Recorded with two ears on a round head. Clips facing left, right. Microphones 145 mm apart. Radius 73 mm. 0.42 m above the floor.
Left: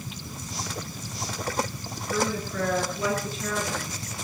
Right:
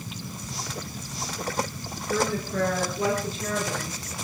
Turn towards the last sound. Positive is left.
turn(degrees=-25)  # may be behind; listen again after turning